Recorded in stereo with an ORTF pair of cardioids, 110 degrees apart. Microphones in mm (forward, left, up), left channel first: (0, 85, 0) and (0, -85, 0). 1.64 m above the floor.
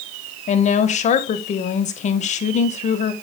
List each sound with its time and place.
0.5 s a woman speaking: 45° left, 1.5 m